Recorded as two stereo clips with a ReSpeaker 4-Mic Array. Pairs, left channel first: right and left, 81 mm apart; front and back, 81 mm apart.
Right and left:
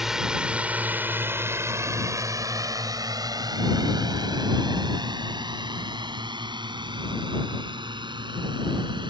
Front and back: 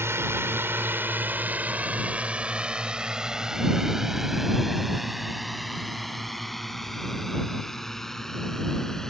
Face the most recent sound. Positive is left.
turn(degrees=85)